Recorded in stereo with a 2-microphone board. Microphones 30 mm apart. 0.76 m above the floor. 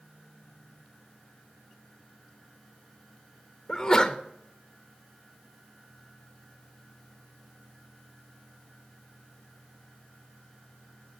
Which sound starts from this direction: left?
A sneeze, at 3.7 s.